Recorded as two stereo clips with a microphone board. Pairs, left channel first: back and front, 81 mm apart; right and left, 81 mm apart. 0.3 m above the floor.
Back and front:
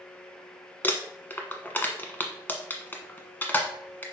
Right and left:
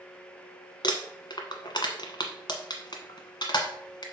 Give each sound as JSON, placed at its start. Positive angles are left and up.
{"t": 0.8, "sound": "crumpling", "azimuth_deg": -110, "distance_m": 1.3}